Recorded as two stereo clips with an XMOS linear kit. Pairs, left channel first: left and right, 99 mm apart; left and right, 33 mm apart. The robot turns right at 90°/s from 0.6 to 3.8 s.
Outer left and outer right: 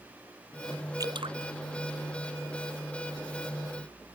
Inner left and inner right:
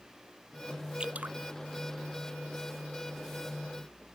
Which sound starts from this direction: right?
Dripping, at 1.0 s.